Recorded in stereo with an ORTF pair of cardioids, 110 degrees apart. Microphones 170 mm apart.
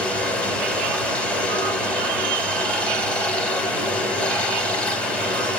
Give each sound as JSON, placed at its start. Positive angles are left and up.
{"t": 0.0, "sound": "running water", "azimuth_deg": 5, "distance_m": 1.9}